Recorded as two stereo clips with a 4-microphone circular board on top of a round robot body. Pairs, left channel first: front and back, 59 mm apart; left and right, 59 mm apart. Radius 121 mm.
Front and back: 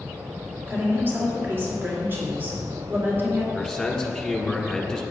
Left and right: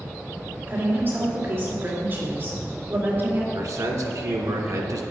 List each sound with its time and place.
0.7 s a woman speaking: 135° right, 2.5 m
3.5 s a man speaking: 85° right, 1.8 m